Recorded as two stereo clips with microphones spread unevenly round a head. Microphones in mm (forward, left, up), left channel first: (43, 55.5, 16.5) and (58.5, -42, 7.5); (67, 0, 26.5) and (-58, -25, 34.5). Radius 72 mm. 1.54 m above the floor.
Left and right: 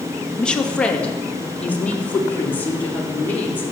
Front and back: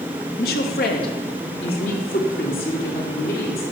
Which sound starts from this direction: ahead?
A woman speaking, at 0.4 s.